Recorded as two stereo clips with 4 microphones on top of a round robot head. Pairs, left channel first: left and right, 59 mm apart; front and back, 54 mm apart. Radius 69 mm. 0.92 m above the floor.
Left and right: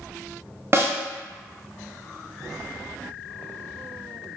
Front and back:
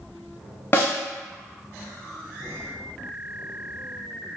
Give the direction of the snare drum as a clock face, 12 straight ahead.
2 o'clock.